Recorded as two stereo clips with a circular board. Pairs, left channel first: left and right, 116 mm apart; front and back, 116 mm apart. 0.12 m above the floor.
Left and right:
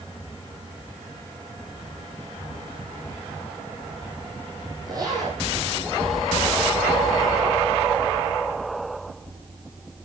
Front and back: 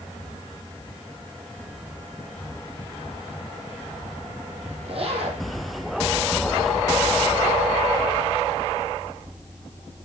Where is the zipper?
145° right, 5.5 m.